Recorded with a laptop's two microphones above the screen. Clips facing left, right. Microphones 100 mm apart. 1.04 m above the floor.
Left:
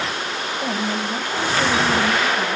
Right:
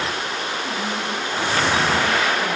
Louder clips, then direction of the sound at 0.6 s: Left 2 dB; 70° left (ahead or behind).